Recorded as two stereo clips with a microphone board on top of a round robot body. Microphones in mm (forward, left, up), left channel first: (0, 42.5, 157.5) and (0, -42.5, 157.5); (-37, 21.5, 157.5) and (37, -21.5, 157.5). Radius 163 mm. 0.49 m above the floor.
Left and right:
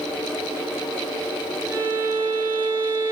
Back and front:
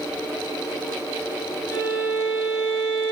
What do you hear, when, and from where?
1.7 s a violin: 155° right, 4 m